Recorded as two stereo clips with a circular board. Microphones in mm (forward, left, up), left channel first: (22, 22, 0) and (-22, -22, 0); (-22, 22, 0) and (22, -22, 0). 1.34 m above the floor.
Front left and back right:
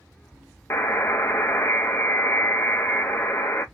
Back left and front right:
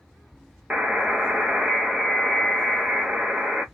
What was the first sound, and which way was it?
A buzzer, 25° left.